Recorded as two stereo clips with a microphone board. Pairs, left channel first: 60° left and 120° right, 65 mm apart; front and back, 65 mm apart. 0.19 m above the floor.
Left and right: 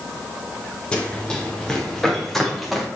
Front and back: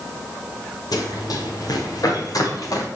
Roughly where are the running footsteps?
Ahead.